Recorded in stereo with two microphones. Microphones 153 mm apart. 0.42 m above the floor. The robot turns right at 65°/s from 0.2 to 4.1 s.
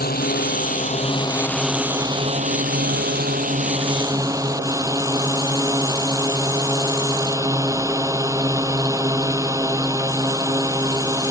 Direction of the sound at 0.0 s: 85° left.